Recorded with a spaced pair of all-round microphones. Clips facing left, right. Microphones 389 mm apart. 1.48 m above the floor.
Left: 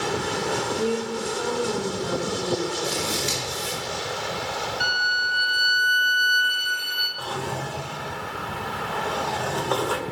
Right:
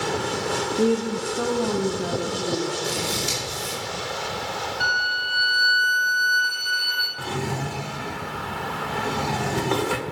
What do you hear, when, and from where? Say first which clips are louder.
0.8 s a woman speaking: right 7 dB; 55° right (ahead or behind), 0.5 m; by 2.7 s 80° right, 2 m
2.9 s scissors: even; 55° right (ahead or behind), 5 m
4.8 s a violin: even; 50° left (ahead or behind), 2.0 m
7.2 s a drawer: right 3 dB; 40° right (ahead or behind), 0.7 m